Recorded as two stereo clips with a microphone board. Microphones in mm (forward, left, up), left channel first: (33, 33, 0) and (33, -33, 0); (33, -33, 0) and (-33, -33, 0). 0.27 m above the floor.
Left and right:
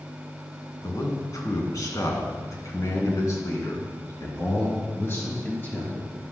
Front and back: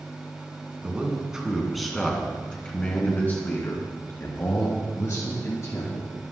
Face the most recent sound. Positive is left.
turn(degrees=35)